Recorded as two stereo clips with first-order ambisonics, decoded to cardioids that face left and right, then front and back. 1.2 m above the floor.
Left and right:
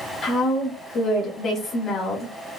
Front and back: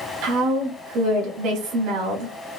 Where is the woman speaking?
150° left, 1.9 m.